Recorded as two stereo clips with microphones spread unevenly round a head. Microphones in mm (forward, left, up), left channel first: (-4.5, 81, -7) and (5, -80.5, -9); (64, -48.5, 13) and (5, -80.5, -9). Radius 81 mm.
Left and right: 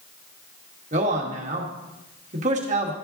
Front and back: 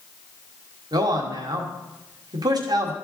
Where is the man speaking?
135° right, 1.4 m.